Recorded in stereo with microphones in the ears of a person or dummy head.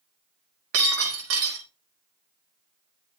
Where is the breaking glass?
75° right (ahead or behind), 4.5 m.